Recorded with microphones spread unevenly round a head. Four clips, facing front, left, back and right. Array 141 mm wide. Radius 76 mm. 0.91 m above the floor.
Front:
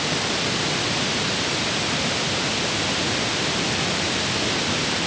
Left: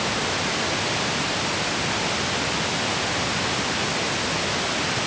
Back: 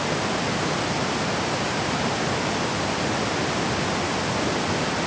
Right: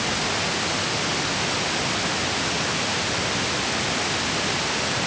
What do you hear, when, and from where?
Only background noise.